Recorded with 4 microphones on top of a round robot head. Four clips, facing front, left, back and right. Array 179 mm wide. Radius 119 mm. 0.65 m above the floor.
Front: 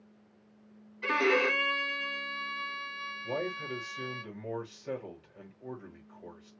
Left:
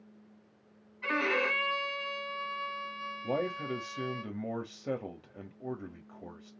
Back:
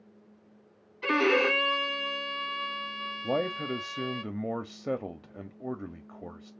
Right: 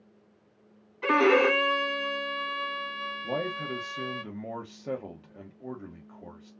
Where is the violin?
105° right, 0.5 m.